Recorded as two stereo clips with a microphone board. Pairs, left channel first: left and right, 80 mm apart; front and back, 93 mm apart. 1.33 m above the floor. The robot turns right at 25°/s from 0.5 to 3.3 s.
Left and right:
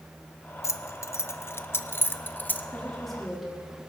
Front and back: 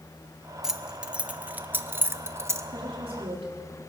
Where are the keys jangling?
95° left, 0.5 m; by 2.7 s 150° left, 0.5 m.